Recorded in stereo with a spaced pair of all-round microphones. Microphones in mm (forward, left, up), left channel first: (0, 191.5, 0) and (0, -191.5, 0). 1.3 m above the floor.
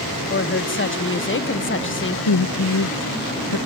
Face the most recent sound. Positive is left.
turn(degrees=85)